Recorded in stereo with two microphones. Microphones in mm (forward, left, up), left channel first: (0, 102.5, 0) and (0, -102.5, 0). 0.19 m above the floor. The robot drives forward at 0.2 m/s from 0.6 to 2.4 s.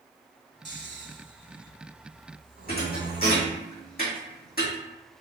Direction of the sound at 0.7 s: 65° right (ahead or behind).